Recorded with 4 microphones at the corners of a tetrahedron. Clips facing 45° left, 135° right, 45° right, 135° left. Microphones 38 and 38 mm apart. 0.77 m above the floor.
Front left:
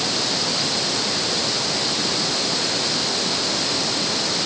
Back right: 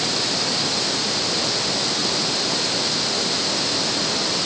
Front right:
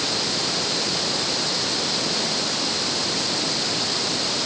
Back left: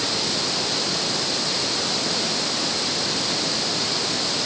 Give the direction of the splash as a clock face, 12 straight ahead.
I don't hear a splash.